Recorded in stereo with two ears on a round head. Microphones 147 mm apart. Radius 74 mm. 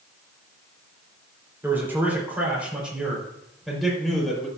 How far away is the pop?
No pop in this recording.